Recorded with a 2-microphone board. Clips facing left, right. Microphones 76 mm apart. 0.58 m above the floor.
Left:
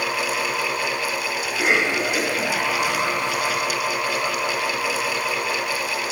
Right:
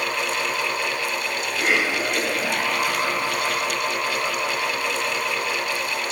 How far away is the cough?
About 3 m.